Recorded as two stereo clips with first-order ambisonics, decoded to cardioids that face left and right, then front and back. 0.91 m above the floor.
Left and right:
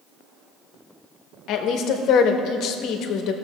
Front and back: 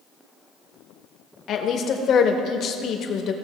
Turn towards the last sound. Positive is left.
turn(degrees=50)